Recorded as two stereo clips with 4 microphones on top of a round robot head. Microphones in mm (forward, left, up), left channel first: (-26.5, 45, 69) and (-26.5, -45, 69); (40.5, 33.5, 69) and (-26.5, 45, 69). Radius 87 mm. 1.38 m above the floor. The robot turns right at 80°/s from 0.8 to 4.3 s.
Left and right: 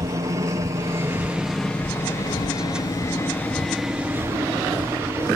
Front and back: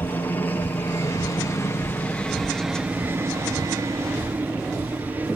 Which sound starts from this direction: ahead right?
A helicopter, at 0.0 s.